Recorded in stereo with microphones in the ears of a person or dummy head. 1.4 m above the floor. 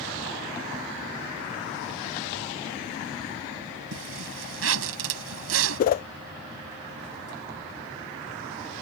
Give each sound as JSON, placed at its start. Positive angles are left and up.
{"t": 3.9, "sound": "a zipper", "side_deg": -90}
{"t": 5.8, "sound": "a whoosh", "side_deg": 45}